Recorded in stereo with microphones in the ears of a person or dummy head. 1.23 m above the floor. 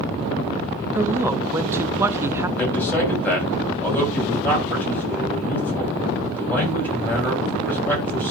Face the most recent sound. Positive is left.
turn(degrees=10)  # may be behind; listen again after turning